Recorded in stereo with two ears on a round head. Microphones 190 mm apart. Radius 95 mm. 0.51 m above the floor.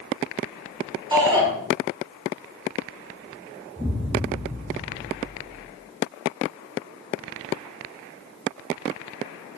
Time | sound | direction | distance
1.1 | a shout | 20° right (ahead or behind) | 4 m
3.8 | an explosion | 10° right (ahead or behind) | 4.5 m